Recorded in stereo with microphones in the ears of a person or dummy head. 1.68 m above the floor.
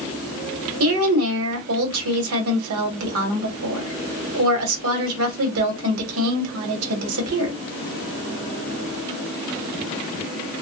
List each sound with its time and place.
0.8 s a woman speaking: 75° right (ahead or behind), 1.1 m